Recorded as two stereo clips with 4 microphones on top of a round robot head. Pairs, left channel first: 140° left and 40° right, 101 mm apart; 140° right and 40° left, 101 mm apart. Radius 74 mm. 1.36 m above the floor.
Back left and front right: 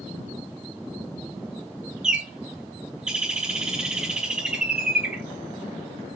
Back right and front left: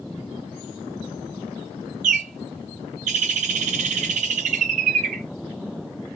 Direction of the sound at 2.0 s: 40° left.